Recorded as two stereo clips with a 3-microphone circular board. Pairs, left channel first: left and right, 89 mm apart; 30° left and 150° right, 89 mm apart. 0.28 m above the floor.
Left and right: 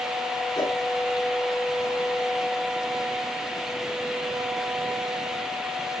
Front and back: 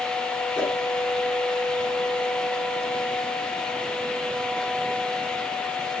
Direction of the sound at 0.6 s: 125° left.